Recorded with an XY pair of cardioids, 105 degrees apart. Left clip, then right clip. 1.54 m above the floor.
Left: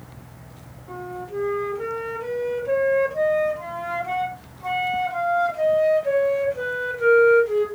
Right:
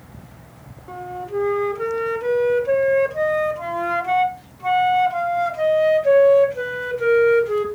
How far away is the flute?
About 0.6 m.